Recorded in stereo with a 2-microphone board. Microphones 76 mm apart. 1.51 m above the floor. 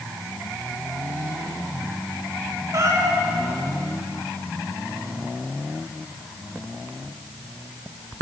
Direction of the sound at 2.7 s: 45° right (ahead or behind).